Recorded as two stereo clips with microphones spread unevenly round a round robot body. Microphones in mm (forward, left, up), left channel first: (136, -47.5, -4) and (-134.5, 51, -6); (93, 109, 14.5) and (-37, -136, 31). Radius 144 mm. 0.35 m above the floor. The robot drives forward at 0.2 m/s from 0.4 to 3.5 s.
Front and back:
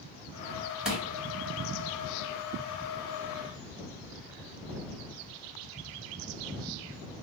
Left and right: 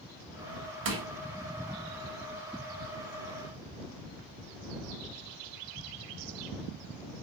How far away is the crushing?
About 2 m.